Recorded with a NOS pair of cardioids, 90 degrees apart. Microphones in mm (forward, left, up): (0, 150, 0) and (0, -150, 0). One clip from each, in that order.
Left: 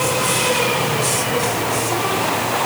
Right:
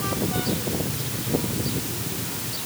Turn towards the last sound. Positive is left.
No sound to turn to.